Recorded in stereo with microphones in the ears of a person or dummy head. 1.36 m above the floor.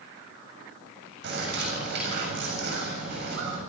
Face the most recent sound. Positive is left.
turn(degrees=-65)  # may be behind; listen again after turning